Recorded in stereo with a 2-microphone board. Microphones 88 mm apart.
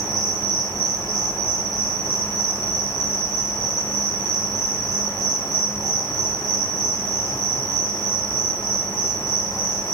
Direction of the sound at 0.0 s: 55° right (ahead or behind).